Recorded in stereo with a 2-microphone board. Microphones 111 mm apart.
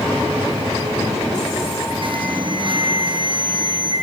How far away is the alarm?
About 4.5 m.